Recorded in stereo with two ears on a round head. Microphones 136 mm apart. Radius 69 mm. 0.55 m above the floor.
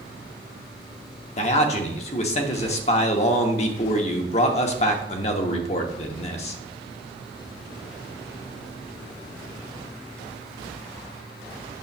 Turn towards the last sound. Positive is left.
turn(degrees=45)  # may be behind; listen again after turning